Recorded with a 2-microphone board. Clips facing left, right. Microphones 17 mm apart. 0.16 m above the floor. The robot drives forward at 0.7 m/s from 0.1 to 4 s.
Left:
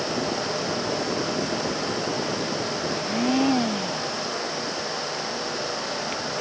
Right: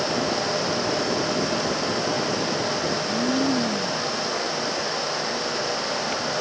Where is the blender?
65° left (ahead or behind); by 4.2 s 60° left (ahead or behind).